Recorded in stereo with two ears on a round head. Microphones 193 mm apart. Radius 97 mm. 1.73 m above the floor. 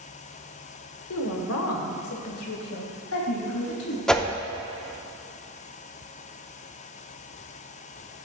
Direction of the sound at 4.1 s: 5° left (ahead or behind).